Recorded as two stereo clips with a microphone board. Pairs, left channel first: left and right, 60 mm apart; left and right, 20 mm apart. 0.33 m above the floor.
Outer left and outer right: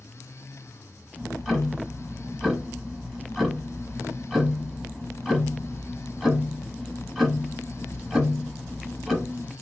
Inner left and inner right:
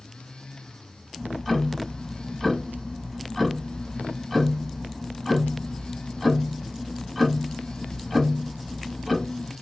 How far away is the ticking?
About 0.9 m.